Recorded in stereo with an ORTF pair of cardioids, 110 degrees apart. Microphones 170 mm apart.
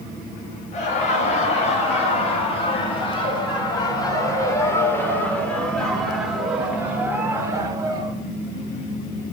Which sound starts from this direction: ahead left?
Laughter, at 0.7 s.